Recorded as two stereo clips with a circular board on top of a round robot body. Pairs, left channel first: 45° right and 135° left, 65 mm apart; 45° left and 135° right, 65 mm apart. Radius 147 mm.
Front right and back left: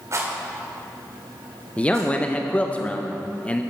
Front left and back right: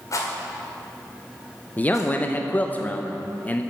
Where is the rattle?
85° left, 1.8 m.